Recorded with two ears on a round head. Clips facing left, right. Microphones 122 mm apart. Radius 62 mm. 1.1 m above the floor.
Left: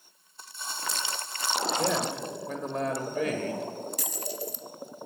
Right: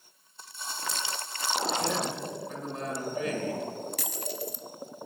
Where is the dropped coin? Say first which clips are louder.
Even; 50° right (ahead or behind), 0.7 m.